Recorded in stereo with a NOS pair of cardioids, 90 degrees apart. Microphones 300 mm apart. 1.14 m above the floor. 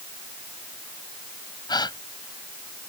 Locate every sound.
1.7 s a gasp: 15° left